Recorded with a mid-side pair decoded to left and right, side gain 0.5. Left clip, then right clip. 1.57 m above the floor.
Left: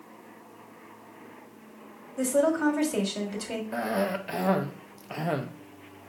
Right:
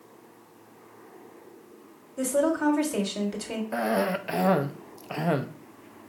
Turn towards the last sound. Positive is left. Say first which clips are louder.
# right 3 dB
turn(degrees=-20)